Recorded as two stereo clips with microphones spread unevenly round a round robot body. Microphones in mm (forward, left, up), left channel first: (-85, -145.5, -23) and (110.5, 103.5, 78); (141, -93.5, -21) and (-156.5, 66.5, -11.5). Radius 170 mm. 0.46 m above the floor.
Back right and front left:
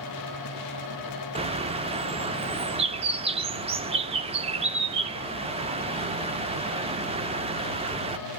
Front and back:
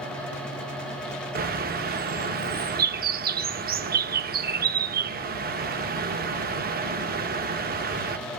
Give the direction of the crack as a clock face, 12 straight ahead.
I don't hear a crack.